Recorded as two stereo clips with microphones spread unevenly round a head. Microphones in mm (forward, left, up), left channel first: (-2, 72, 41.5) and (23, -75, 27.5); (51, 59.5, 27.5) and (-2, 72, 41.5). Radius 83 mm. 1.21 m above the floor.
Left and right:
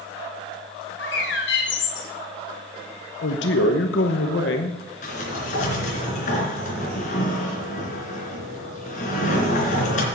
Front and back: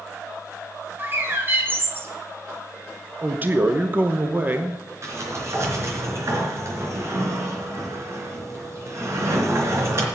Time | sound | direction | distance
1.0 | a bird | 115° left | 2.5 m
3.2 | a man speaking | 105° left | 1.0 m
5.0 | a sliding door | 145° left | 3 m